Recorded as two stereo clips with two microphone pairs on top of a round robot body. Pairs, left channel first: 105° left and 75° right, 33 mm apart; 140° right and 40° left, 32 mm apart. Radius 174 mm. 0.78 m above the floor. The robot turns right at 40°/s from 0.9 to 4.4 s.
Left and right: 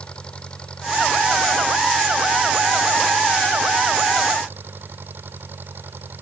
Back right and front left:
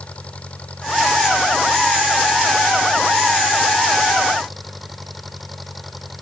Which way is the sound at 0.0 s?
165° left.